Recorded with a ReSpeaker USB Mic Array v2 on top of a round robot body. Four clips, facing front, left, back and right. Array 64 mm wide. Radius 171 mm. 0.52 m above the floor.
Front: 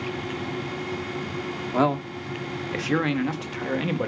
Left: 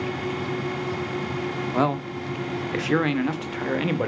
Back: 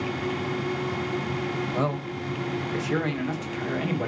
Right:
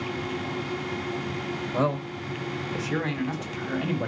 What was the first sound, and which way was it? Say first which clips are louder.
A man speaking: left 2 dB, front 4 dB; 45° left.